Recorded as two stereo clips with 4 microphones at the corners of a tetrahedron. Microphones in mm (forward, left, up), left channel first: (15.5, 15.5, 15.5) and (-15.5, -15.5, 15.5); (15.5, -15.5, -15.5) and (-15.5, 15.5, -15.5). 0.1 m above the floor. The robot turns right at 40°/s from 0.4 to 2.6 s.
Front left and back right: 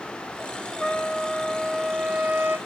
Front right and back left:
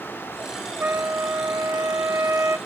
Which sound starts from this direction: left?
A trumpet, at 0.8 s.